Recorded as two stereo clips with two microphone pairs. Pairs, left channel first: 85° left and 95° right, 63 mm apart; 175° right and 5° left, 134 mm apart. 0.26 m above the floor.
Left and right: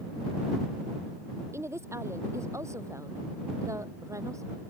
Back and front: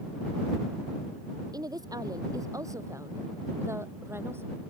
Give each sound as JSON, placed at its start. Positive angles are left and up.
{"t": 1.5, "sound": "a woman speaking", "azimuth_deg": -55}